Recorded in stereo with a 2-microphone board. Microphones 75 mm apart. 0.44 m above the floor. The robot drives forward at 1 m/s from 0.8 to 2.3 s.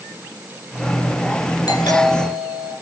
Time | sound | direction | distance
1.7 | a doorbell | 60° left (ahead or behind) | 9 m